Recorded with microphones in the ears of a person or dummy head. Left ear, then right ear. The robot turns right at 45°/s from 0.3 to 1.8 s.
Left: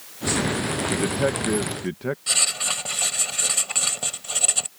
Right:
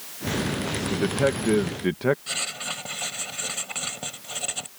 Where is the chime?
I don't hear a chime.